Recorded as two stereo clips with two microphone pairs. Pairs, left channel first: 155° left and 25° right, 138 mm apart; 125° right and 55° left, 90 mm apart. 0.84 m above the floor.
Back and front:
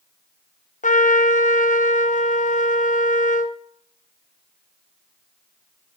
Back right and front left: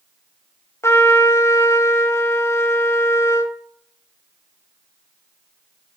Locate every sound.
0.8 s a trumpet: 175° left, 0.6 m